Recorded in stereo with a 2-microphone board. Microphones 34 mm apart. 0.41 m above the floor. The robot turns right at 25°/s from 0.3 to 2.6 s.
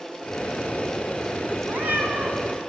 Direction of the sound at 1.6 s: 75° right (ahead or behind).